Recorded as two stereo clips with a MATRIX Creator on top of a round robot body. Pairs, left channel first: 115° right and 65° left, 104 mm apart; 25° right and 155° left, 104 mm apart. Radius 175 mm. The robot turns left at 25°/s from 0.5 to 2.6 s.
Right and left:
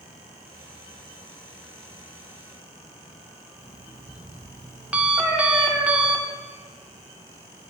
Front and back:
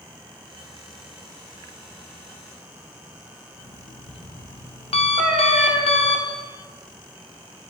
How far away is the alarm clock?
About 0.9 m.